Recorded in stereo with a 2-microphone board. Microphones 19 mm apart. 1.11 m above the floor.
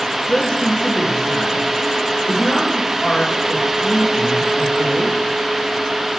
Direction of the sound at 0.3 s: 70° left (ahead or behind).